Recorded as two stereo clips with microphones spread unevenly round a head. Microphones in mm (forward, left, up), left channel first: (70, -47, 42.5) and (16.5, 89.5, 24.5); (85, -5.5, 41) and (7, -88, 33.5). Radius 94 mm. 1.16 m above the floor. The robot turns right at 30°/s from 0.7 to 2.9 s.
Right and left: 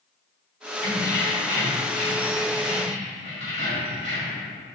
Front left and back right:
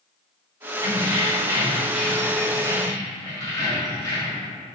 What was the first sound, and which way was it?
Keys jangling, 80° right.